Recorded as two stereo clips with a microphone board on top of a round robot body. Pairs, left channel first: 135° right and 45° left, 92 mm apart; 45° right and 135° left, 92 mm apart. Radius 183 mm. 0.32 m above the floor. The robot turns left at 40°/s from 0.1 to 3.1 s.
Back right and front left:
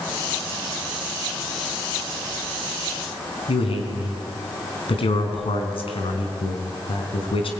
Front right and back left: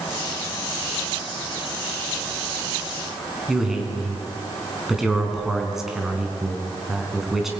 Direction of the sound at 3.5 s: 140° right.